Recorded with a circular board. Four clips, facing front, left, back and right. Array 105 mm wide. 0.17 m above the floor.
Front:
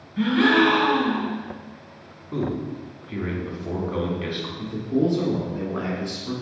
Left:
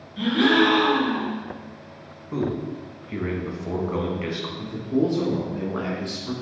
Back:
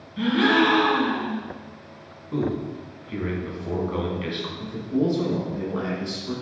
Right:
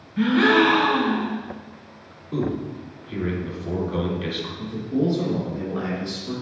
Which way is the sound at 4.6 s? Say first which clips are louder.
Left 1 dB, front 2 dB; 55° left.